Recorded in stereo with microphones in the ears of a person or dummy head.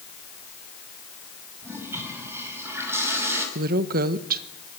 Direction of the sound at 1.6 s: 15° right (ahead or behind).